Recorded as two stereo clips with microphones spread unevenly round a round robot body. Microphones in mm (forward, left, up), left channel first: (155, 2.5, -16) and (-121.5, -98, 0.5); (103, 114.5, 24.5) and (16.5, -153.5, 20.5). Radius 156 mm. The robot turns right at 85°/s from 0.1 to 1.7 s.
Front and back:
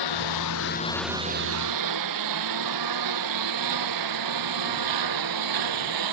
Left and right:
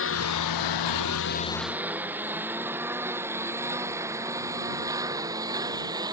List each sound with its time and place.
0.0 s a lawn mower: 30° left; by 6.1 s 175° left